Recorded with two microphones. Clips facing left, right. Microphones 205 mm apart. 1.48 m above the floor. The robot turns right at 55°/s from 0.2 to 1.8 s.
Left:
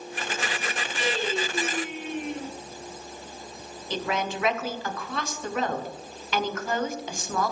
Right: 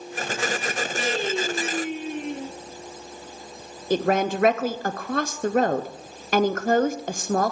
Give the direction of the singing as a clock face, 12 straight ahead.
3 o'clock.